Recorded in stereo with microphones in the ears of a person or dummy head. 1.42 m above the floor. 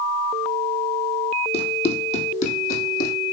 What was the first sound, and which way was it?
Running footsteps, 35° left (ahead or behind).